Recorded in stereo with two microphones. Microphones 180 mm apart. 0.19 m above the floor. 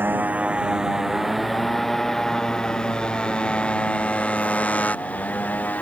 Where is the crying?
No crying in this recording.